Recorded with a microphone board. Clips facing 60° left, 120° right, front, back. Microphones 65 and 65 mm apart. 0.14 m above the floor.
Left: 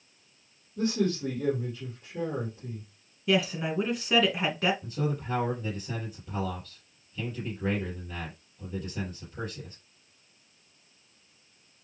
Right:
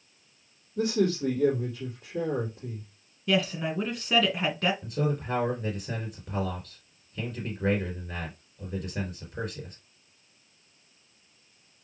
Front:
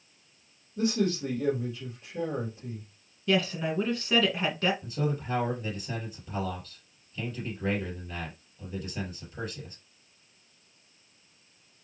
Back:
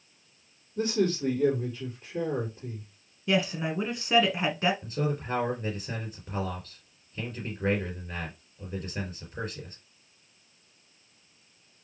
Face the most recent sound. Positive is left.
turn(degrees=-135)